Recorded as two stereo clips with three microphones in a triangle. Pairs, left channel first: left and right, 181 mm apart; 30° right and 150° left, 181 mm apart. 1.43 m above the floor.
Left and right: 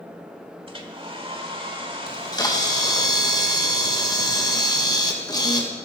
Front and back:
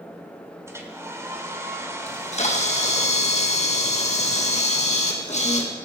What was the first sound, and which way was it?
A hair dryer, 140° right.